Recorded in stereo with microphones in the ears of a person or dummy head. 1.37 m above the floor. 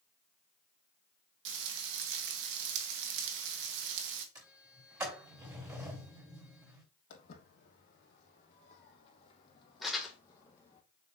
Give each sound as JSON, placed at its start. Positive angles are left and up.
{"t": 1.4, "sound": "frying", "side_deg": -70, "distance_m": 1.1}
{"t": 4.3, "sound": "a sliding door", "side_deg": -15, "distance_m": 3.0}
{"t": 7.1, "sound": "footsteps", "side_deg": 50, "distance_m": 3.0}
{"t": 9.8, "sound": "crumpling", "side_deg": -5, "distance_m": 1.7}